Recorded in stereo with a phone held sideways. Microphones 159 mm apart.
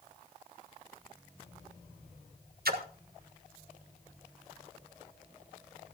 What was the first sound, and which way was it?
A splash, 75° right (ahead or behind).